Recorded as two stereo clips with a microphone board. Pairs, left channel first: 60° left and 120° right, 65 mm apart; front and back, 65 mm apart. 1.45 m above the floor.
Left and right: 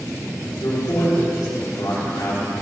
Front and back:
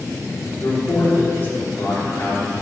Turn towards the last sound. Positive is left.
turn(degrees=50)